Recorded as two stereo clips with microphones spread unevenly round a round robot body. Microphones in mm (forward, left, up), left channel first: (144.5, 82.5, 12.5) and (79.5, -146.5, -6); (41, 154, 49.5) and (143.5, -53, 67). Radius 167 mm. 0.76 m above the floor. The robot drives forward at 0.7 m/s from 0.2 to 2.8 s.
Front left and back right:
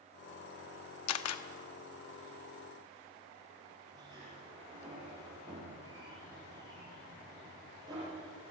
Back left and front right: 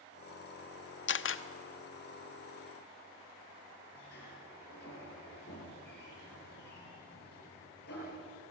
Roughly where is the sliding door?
Behind.